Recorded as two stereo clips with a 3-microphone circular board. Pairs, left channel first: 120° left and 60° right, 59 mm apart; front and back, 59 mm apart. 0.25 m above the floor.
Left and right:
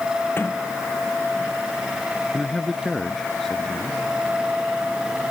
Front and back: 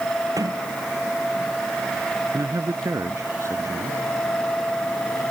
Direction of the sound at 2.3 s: 155° right.